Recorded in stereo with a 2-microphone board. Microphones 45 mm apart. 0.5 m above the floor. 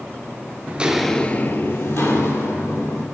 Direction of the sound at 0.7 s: 30° right (ahead or behind).